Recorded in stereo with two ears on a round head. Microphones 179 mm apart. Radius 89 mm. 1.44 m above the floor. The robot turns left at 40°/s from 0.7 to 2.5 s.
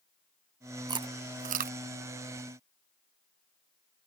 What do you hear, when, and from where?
0.9 s chewing: 20° right (ahead or behind); by 1.8 s 45° right (ahead or behind)